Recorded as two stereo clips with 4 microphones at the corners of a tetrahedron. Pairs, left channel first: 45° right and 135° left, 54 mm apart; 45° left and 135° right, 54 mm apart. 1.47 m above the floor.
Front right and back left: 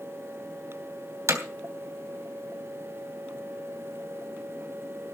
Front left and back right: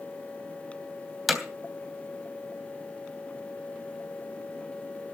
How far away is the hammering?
About 3 m.